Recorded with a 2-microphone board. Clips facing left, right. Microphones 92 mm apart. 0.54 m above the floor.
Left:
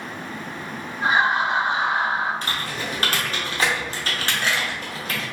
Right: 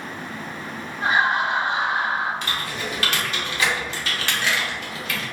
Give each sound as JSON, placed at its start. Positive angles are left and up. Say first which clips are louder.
{"t": 1.0, "sound": "laughter", "louder": "left 1 dB", "side_deg": 20, "distance_m": 1.6}
{"t": 2.4, "sound": "typing on a keyboard", "louder": "even", "side_deg": 40, "distance_m": 0.7}